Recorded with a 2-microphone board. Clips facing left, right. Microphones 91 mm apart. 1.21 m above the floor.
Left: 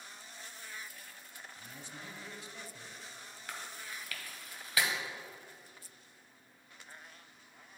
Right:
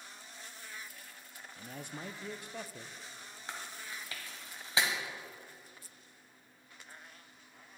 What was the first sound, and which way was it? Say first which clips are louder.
A man speaking: right 7 dB; 60° right (ahead or behind).